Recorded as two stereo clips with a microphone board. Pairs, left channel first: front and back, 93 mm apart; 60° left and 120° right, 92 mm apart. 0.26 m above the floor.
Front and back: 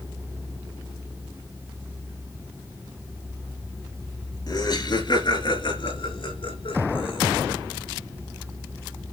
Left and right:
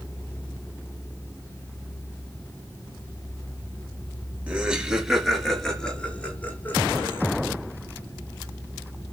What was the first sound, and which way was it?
Laughter, 45° right.